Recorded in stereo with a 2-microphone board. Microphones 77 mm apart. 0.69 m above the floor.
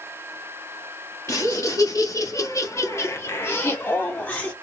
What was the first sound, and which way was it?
Laughter, 40° left (ahead or behind).